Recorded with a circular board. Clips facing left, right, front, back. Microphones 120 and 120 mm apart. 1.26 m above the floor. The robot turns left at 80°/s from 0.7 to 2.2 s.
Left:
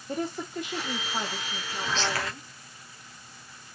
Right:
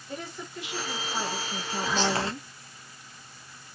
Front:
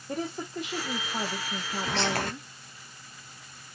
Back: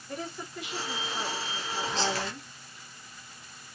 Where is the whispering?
5° right, 0.9 m; by 2.3 s 30° right, 0.9 m.